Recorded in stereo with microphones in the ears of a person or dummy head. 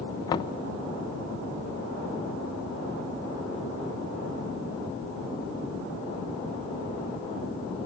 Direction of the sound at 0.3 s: 20° left (ahead or behind).